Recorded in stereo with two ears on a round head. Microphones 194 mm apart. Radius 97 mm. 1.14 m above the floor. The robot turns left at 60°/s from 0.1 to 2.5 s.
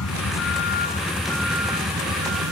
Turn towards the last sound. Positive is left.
turn(degrees=-70)  # may be behind; listen again after turning